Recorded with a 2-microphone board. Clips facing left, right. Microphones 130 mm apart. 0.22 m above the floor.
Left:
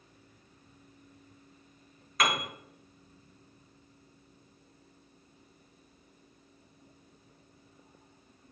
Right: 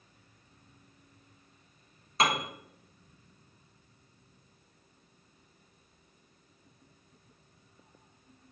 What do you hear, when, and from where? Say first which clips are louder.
2.2 s a piano: right 2 dB; 30° right (ahead or behind), 0.8 m